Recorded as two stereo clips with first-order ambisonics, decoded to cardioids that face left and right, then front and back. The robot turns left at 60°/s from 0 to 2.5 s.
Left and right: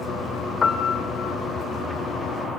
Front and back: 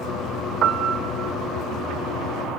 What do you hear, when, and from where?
0.6 s a piano: 155° left, 1.3 m; by 1.4 s 110° left, 1.3 m